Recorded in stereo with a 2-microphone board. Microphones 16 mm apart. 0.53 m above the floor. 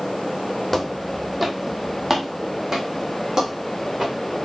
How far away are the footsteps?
About 1.0 m.